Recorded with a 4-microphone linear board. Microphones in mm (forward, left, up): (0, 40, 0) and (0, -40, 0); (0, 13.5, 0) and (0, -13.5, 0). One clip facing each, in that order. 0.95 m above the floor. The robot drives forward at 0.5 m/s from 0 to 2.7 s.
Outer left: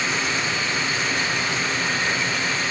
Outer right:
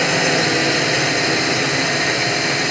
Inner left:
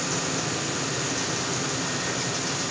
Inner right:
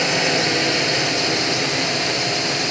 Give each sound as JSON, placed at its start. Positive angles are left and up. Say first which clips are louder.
{"t": 0.0, "sound": "a drone", "louder": "outer right 8 dB, inner right 10 dB", "side_deg": -75}